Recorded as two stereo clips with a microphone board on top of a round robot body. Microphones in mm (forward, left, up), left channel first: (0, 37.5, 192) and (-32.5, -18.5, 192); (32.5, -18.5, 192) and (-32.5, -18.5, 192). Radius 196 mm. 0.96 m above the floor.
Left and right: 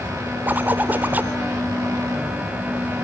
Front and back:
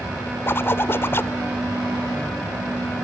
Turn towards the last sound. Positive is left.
turn(degrees=-55)